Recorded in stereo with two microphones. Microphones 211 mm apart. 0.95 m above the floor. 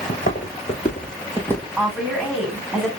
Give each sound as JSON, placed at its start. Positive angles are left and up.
{"t": 0.1, "sound": "footsteps", "side_deg": 40, "distance_m": 3.0}
{"t": 1.8, "sound": "a woman speaking", "side_deg": 0, "distance_m": 3.0}